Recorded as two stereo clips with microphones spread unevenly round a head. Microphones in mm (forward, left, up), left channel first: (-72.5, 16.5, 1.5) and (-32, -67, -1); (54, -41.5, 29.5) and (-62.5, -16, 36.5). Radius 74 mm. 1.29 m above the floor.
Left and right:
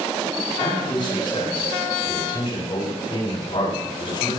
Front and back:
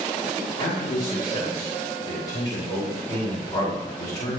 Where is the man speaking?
55° left, 5 m.